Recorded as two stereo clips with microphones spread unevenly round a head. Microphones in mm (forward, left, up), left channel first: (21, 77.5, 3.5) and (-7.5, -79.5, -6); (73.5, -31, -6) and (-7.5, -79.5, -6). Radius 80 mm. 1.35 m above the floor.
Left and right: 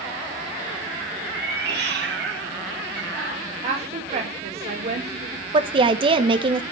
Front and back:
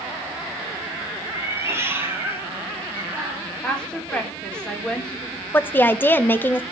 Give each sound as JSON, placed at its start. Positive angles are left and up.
{"t": 1.3, "sound": "a cat meowing", "azimuth_deg": -95, "distance_m": 2.0}
{"t": 3.6, "sound": "a woman speaking", "azimuth_deg": -50, "distance_m": 4.5}
{"t": 5.5, "sound": "a woman speaking", "azimuth_deg": -40, "distance_m": 1.0}